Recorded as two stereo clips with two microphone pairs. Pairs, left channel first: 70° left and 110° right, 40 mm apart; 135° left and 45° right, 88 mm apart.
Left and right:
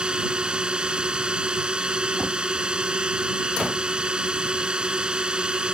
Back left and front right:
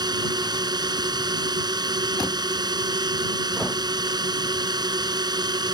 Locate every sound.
0.0 s a drone: 50° right